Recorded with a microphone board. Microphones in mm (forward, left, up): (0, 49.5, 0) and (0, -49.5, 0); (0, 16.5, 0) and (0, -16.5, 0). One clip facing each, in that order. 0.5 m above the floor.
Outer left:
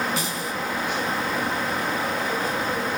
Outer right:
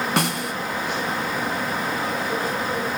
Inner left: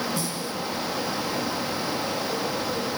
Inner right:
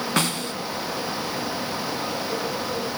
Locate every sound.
0.2 s a snare drum: 80° right, 1.3 m